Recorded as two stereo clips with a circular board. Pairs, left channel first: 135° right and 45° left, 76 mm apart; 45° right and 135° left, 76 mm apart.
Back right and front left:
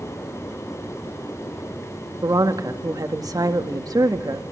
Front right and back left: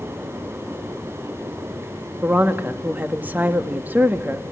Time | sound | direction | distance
2.2 | a woman speaking | 70° left | 1.4 m